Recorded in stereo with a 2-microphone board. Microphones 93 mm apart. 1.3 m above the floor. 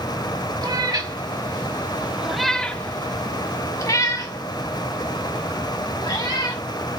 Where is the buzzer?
No buzzer in this recording.